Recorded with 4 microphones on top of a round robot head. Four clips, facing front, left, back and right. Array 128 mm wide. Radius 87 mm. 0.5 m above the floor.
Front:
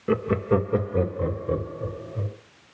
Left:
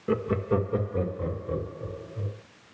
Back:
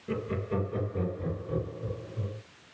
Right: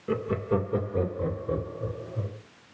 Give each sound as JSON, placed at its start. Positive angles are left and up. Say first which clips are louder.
{"t": 0.1, "sound": "laughter", "louder": "left 1 dB, front 10 dB", "azimuth_deg": 10, "distance_m": 1.7}